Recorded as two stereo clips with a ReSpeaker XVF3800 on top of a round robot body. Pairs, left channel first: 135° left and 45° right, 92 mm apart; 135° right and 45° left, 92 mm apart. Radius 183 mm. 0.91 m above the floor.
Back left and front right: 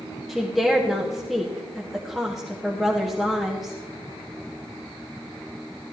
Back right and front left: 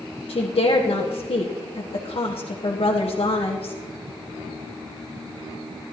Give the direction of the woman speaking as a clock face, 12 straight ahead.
4 o'clock.